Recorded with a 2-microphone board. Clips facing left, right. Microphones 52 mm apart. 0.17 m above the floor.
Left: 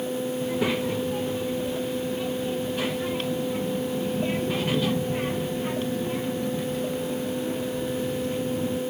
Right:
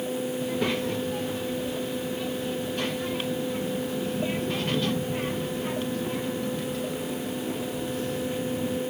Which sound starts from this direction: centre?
A child speaking, at 0.4 s.